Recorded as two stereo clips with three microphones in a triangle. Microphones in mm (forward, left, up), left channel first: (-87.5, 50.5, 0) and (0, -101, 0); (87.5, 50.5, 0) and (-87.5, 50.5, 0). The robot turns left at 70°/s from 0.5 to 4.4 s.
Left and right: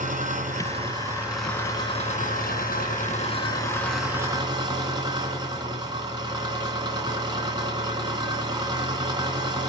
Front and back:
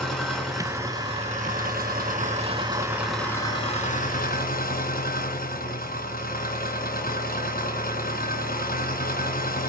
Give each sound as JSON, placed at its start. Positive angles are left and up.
{"t": 0.0, "sound": "an engine running", "azimuth_deg": -85, "distance_m": 2.0}